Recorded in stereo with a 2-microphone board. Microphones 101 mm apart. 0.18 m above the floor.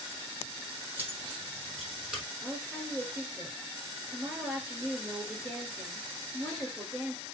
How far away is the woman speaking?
About 3 m.